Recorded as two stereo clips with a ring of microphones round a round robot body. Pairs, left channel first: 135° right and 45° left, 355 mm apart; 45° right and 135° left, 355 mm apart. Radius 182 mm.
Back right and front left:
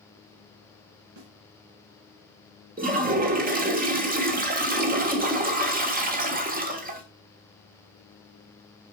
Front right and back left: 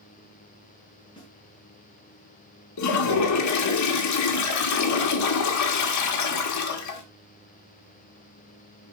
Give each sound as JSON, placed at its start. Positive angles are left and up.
{"t": 1.2, "sound": "a snare drum", "azimuth_deg": 35, "distance_m": 3.0}
{"t": 2.8, "sound": "a toilet flushing", "azimuth_deg": -15, "distance_m": 1.4}